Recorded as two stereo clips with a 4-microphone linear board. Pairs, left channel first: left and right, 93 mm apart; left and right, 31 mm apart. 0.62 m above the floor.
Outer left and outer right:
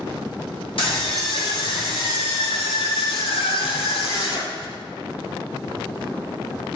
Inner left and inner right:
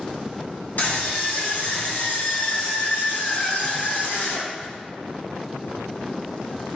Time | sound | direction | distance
0.8 | a scream | 75° left (ahead or behind) | 5.5 m